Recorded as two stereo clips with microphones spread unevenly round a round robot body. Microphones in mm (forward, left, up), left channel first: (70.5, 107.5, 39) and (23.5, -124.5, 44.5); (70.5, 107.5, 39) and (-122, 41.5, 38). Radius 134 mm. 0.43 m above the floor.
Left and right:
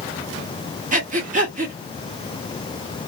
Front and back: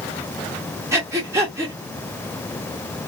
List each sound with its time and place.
0.9 s breathing: 100° right, 1.4 m